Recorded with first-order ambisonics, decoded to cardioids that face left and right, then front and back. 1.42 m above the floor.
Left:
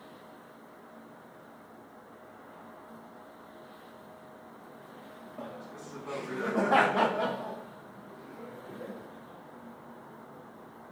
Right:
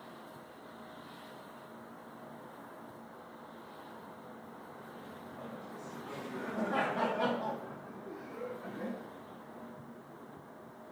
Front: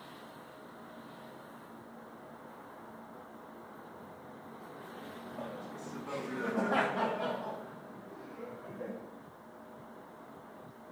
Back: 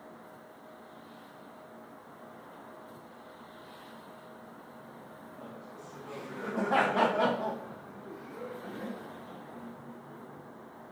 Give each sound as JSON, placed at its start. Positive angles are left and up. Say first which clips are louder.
{"t": 5.4, "sound": "laughter", "louder": "left 4 dB, front 4 dB", "azimuth_deg": 70, "distance_m": 1.9}